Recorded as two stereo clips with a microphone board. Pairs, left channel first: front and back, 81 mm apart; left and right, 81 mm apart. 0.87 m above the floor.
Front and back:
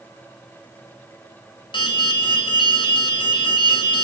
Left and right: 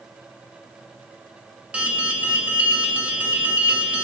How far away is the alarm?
About 4.5 m.